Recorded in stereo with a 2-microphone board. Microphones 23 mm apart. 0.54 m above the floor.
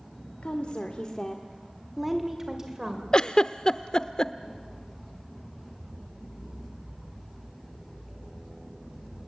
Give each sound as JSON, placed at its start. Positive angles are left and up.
{"t": 0.4, "sound": "a woman speaking", "side_deg": 60, "distance_m": 1.8}
{"t": 3.1, "sound": "a giggle", "side_deg": 35, "distance_m": 0.7}